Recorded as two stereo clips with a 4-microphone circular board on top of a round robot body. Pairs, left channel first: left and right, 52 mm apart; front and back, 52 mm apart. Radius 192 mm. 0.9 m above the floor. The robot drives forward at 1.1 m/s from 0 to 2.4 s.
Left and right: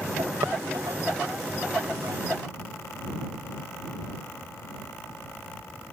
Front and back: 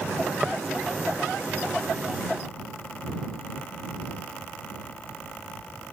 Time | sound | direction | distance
0.4 | tapping | 95° right | ?